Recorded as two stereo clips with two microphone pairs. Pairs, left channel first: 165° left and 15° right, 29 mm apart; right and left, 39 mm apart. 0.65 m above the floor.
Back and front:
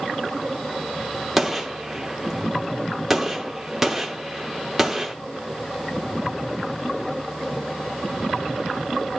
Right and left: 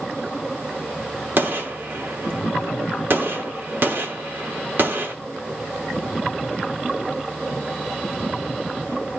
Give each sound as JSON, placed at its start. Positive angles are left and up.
{"t": 1.4, "sound": "a gunshot", "azimuth_deg": 65, "distance_m": 1.0}